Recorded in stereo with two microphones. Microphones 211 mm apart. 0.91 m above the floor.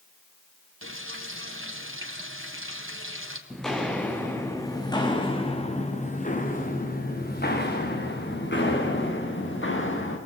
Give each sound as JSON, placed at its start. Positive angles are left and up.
{"t": 0.8, "sound": "frying", "side_deg": -75, "distance_m": 3.5}
{"t": 3.5, "sound": "footsteps", "side_deg": 0, "distance_m": 4.0}